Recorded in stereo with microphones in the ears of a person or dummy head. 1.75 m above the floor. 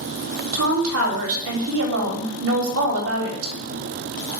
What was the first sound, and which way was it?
A woman speaking, 75° right (ahead or behind).